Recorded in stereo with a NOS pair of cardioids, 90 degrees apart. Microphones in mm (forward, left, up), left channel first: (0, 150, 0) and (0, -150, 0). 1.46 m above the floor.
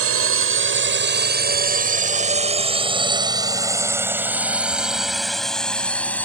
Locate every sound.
0.0 s a drone: 50° right; by 6.3 s 5° left